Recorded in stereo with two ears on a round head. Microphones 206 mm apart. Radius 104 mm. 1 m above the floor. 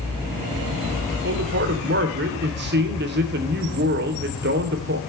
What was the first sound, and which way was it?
A man speaking, 45° right (ahead or behind).